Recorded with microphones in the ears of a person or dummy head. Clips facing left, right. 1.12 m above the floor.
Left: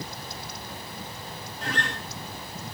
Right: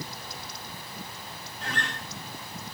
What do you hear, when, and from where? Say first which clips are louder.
1.6 s a guitar: left 3 dB; 50° left (ahead or behind), 4.5 m